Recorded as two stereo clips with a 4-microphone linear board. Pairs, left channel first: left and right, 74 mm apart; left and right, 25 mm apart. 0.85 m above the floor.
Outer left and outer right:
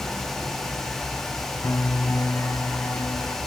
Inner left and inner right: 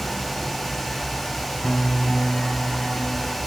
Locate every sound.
1.6 s a piano: 40° left (ahead or behind)